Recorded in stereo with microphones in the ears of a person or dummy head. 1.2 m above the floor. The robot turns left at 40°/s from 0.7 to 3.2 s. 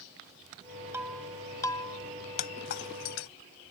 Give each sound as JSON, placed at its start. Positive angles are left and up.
{"t": 0.9, "sound": "breaking glass", "side_deg": -10}